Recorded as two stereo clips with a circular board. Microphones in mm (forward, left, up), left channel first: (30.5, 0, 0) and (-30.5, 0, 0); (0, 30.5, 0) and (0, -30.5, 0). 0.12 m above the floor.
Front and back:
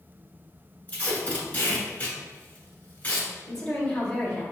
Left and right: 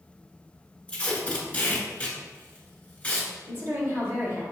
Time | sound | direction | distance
0.9 | tape being pulled | 40° left | 1.3 m
3.5 | a woman speaking | 80° right | 1.9 m